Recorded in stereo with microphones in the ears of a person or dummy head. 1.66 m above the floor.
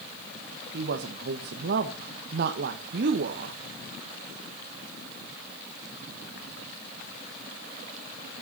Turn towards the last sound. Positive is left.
turn(degrees=-55)  # may be behind; listen again after turning